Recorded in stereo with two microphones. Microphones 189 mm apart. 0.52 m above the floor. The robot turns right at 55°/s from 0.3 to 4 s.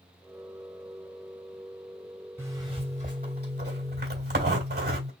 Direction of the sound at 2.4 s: 165° right.